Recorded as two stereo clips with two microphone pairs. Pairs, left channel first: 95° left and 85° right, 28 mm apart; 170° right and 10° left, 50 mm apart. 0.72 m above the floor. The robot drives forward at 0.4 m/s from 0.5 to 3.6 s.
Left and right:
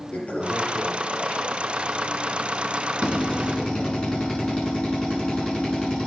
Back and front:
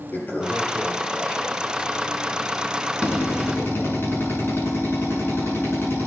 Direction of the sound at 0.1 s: 130° left.